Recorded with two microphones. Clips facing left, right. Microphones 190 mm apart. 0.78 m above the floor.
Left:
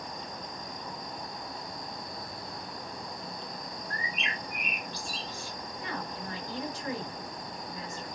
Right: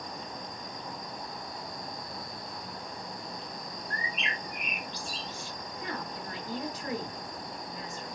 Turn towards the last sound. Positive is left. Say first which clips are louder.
# even
turn(degrees=-40)  # may be behind; listen again after turning